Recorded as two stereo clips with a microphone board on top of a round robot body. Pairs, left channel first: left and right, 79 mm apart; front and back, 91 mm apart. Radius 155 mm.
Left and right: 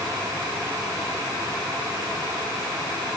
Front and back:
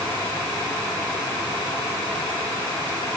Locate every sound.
Only background noise.